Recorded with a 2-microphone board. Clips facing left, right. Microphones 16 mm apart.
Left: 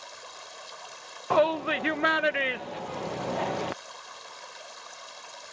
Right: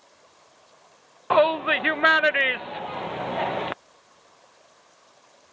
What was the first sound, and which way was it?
Running water, 70° left (ahead or behind).